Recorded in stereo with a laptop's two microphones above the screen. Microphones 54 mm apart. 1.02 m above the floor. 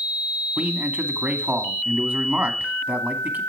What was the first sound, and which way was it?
A man speaking, 35° right (ahead or behind).